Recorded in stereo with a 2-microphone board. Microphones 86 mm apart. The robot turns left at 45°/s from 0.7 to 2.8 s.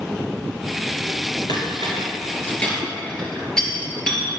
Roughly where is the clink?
Left.